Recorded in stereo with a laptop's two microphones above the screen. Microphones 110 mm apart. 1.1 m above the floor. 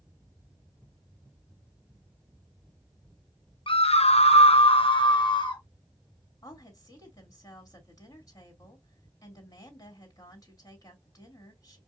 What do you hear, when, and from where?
3.7 s a scream: 55° left (ahead or behind), 0.6 m; by 5.6 s 45° left (ahead or behind), 1.5 m
6.4 s a woman speaking: 30° left (ahead or behind), 2.5 m